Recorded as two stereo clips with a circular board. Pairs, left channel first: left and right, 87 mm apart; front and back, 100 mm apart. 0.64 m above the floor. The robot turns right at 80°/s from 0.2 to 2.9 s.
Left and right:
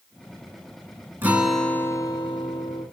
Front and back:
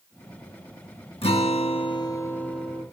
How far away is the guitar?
About 2.5 m.